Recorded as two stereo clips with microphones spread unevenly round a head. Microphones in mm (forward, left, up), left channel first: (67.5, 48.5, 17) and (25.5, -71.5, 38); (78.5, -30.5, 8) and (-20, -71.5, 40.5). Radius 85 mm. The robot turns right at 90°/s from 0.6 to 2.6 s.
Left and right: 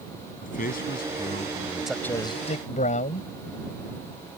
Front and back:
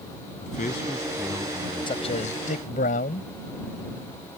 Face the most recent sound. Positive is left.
turn(degrees=40)